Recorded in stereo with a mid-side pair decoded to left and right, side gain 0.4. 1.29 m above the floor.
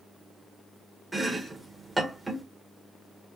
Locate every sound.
1.1 s chopping: 15° right, 1.5 m